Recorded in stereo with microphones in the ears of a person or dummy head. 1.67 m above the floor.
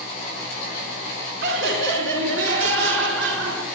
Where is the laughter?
70° right (ahead or behind), 4 m; by 3.6 s 85° right, 5.5 m.